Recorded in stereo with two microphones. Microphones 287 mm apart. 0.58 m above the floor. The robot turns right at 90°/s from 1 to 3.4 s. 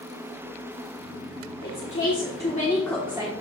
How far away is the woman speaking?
About 1.5 m.